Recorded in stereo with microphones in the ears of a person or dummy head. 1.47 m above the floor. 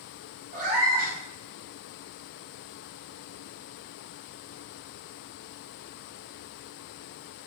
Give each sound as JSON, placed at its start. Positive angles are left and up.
{"t": 0.5, "sound": "a cat meowing", "side_deg": -50, "distance_m": 1.2}